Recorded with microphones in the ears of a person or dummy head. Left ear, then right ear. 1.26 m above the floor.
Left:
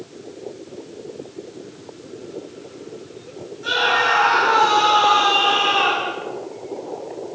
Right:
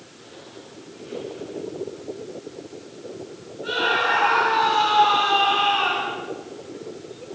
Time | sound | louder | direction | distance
3.6 | a scream | left 4 dB | 85° left | 9 m